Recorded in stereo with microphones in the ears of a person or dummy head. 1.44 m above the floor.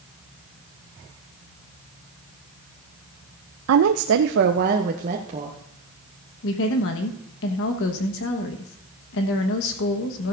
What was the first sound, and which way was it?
A woman speaking, 80° right.